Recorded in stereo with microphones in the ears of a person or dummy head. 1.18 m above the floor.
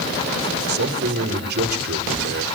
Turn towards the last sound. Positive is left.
turn(degrees=-60)  # may be behind; listen again after turning